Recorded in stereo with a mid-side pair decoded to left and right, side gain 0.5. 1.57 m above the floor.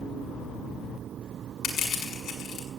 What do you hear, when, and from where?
1.6 s crushing: 60° left, 7 m